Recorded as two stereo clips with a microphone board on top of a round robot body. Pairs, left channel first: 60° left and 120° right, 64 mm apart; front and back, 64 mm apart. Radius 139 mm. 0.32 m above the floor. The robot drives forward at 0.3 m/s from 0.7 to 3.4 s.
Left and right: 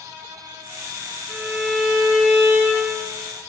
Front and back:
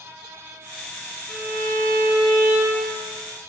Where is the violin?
40° right, 0.7 m; by 3.0 s 145° right, 0.8 m.